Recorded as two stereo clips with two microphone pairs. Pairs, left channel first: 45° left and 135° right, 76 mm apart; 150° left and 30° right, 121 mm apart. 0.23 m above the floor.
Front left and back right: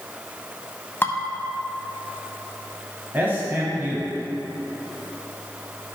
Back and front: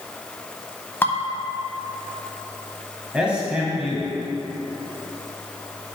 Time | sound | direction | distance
1.0 | dishes clattering | 95° left | 0.8 m
3.1 | a man speaking | 105° right | 1.1 m